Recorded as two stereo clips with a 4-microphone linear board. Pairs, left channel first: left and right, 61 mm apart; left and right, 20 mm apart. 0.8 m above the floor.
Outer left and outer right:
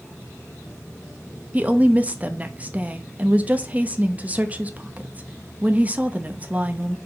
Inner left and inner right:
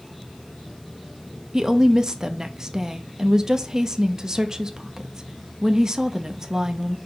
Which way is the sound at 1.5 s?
25° right (ahead or behind).